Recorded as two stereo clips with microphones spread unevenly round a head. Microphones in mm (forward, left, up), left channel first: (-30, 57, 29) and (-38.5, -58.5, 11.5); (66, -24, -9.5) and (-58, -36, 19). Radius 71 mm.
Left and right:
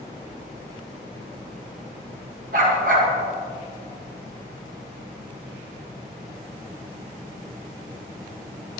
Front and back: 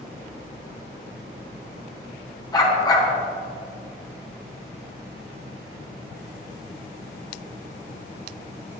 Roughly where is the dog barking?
Ahead right.